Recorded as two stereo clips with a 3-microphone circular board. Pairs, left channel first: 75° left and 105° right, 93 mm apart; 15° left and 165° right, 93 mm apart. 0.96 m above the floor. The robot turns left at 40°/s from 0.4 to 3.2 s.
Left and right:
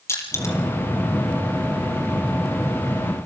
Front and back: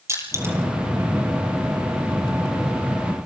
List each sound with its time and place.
0.1 s crushing: 135° left, 4.5 m; by 0.6 s 130° left, 4.5 m